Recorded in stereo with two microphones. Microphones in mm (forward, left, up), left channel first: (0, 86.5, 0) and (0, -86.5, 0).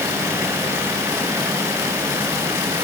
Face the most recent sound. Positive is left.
No sound to turn to.